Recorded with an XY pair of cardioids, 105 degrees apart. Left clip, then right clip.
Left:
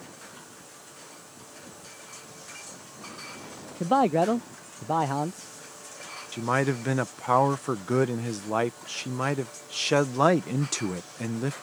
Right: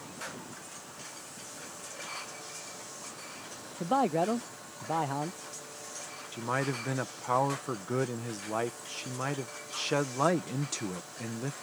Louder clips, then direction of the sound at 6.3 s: Left 6 dB; 45° left.